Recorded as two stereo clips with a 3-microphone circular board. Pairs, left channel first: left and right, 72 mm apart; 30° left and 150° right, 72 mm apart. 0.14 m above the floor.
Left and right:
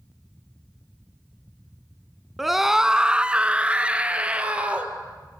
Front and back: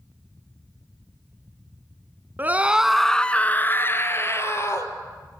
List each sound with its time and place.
2.4 s a scream: straight behind, 1.3 m; by 4.9 s 20° right, 3.5 m